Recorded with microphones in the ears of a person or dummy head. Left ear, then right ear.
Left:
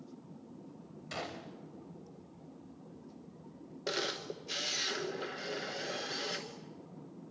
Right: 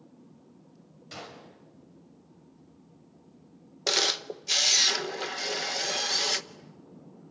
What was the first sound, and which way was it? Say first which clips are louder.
A gunshot: left 2 dB; 25° left (ahead or behind).